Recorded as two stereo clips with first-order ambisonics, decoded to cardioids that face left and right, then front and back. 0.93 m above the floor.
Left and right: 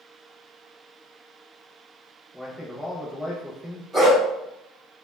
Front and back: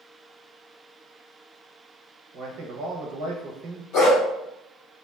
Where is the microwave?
I don't hear a microwave.